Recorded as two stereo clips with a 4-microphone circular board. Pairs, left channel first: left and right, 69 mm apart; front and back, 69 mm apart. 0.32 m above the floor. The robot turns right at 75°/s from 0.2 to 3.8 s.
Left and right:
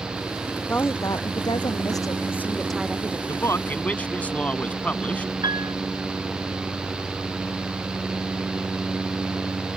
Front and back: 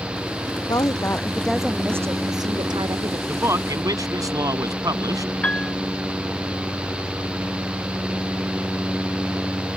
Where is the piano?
75° right.